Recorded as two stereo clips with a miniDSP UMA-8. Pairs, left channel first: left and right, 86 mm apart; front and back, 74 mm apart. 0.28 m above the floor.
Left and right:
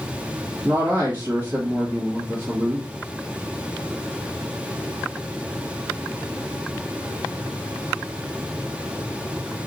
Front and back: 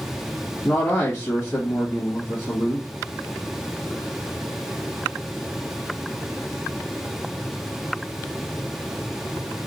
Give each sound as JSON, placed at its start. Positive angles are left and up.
{"t": 0.6, "sound": "a man speaking", "azimuth_deg": -45, "distance_m": 1.4}